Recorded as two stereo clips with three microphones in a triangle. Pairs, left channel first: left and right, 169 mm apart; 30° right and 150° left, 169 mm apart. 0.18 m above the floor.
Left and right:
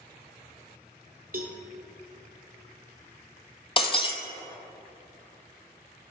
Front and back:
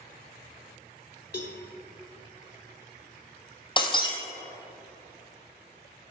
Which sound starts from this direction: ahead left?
Breaking glass, at 3.8 s.